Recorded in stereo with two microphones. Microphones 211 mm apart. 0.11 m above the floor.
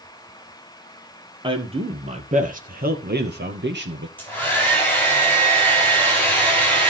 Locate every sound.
1.4 s a man speaking: 25° right (ahead or behind), 2.5 m; by 4.1 s 60° right (ahead or behind), 2.5 m
4.2 s a hair dryer: 10° left (ahead or behind), 9.5 m